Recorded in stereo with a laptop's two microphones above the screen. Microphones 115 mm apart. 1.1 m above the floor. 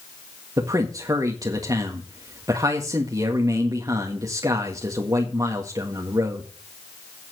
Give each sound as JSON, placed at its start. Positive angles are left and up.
{"t": 0.6, "sound": "a man speaking", "side_deg": -30, "distance_m": 1.7}